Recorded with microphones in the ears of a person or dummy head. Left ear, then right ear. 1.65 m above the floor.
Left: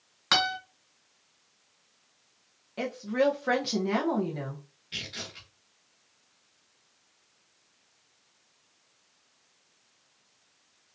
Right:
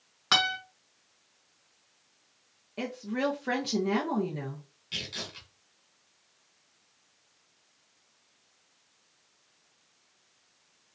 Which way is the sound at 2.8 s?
10° left (ahead or behind).